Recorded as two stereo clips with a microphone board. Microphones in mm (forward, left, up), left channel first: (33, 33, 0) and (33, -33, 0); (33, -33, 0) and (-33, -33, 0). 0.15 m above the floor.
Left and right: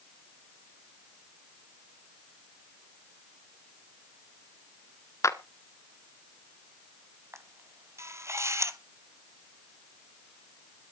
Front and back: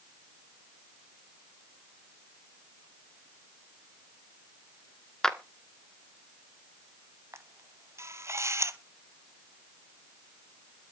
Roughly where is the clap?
Left.